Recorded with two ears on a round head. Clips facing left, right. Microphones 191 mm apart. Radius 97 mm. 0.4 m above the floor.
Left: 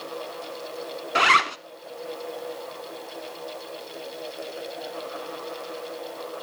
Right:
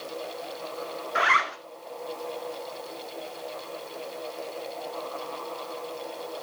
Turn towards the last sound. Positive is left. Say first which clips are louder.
# left 4 dB
turn(degrees=45)  # may be behind; listen again after turning